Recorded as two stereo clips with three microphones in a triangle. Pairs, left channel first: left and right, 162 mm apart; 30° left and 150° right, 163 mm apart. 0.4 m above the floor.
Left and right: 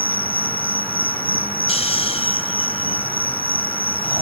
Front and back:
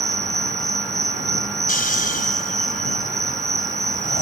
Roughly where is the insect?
Behind.